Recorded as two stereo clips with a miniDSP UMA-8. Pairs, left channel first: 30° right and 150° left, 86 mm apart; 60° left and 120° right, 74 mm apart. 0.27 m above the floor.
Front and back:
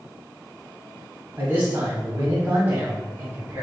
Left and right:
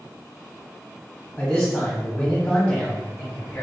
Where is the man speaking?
115° left, 1.1 m.